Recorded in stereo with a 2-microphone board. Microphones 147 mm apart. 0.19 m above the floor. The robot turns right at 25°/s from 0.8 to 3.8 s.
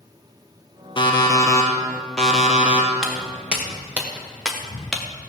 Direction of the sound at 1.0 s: 145° left.